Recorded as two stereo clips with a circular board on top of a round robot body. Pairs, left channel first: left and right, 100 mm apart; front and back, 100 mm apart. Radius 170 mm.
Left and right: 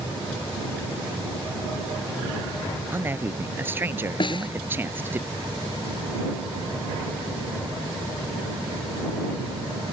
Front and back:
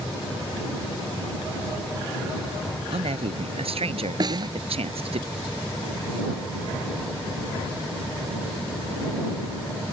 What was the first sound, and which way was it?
A man speaking, 160° right.